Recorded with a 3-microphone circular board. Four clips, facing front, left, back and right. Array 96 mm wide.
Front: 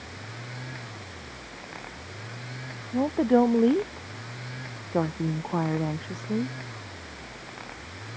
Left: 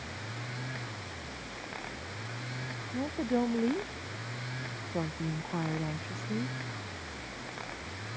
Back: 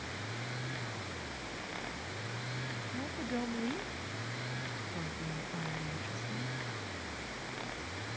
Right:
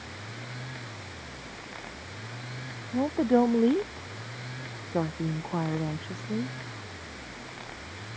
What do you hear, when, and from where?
2.9 s a woman speaking: 30° right; by 6.5 s 15° right